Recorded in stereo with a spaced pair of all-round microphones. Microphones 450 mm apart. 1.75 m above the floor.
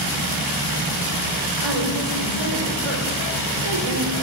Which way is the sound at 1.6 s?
85° right.